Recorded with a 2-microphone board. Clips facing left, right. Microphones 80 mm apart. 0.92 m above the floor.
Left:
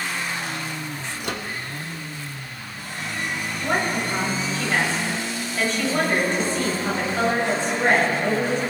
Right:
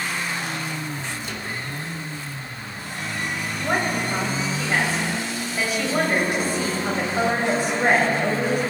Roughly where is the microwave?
Left.